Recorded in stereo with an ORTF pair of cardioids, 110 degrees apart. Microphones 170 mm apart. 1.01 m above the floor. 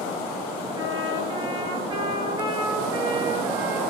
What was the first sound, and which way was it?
A trumpet, 25° right.